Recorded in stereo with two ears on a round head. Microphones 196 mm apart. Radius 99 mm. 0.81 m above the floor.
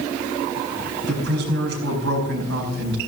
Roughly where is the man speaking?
Right.